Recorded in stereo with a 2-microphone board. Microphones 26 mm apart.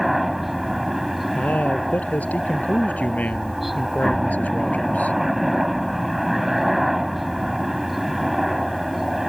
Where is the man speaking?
85° left.